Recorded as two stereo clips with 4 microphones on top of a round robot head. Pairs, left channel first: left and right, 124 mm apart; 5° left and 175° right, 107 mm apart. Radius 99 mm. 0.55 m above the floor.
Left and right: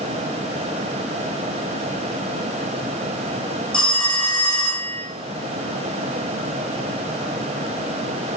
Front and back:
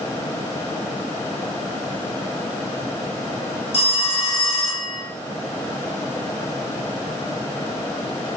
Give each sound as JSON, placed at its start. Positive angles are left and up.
{"t": 3.7, "sound": "a phone ringing", "azimuth_deg": 10, "distance_m": 1.1}